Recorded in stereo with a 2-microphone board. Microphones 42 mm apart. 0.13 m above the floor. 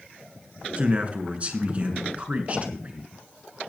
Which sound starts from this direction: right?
A man speaking, at 0.8 s.